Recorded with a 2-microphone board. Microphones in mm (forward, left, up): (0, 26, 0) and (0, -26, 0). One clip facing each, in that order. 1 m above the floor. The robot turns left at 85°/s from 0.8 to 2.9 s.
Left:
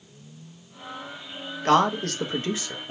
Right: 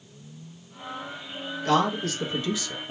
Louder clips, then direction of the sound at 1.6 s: Left 3 dB; 50° left (ahead or behind).